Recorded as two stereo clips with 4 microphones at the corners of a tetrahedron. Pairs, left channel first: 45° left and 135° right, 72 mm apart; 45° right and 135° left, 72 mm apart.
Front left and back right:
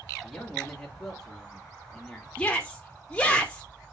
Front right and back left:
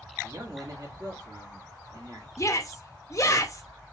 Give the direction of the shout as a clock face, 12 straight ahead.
1 o'clock.